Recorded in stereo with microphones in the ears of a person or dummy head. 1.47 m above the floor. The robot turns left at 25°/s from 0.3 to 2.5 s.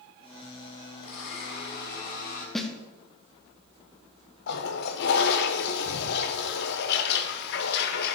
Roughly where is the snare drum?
Centre.